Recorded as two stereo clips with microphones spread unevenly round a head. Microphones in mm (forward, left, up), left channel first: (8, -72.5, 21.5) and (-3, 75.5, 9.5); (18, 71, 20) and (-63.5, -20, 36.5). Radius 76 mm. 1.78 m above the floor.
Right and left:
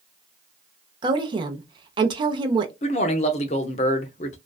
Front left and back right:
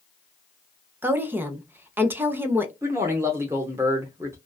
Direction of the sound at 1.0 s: 155° left.